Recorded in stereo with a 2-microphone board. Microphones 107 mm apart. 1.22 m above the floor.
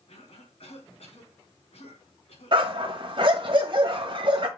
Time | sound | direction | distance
0.1 | a cough | 75° left (ahead or behind) | 4 m
2.5 | a dog barking | 50° right (ahead or behind) | 1.5 m